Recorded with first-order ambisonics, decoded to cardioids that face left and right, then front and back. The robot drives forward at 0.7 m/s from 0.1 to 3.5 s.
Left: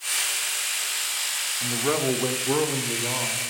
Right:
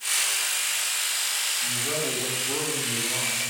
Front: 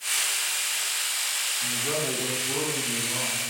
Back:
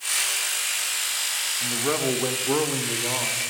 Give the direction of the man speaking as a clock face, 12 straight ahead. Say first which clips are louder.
Left 3 dB, back 3 dB; 8 o'clock.